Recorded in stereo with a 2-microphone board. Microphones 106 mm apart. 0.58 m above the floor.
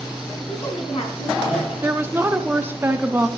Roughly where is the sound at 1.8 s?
Centre.